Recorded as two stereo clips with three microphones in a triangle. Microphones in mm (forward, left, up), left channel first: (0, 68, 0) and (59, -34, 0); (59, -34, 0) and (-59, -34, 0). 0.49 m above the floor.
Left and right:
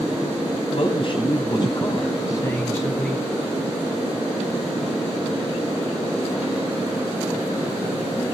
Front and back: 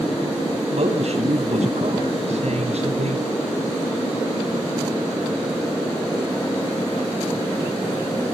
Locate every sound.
0.7 s a man speaking: 155° left, 3 m; by 3.3 s 165° right, 3.5 m